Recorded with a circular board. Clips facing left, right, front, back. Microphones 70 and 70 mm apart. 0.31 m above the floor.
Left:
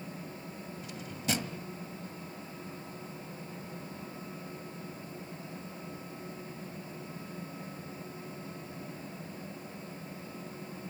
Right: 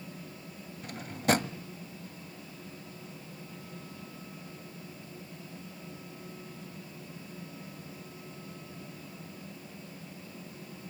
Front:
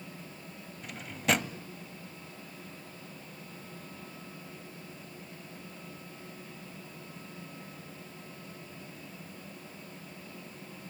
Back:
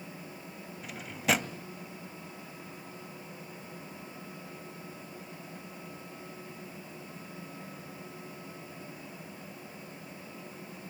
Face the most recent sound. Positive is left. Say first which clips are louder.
# right 8 dB, even
turn(degrees=-90)